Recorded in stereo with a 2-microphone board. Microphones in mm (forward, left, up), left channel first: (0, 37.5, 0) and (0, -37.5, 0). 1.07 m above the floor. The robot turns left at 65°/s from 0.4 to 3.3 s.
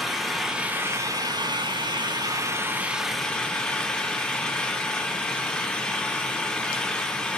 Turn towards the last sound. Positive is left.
turn(degrees=170)